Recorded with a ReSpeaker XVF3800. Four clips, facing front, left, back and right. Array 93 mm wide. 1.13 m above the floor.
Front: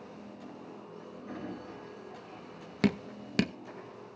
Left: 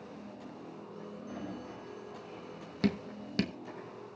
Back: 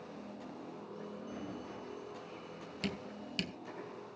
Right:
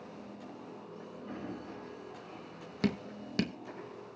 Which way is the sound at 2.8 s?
5° right.